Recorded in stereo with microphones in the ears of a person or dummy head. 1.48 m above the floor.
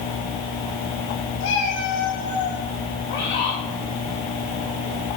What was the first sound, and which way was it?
A cat meowing, 65° left (ahead or behind).